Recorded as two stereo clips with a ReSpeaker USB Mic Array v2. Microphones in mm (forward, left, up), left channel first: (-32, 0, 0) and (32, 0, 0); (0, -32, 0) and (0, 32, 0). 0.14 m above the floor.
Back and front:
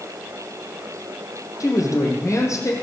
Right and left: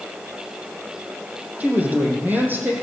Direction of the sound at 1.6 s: 155° left.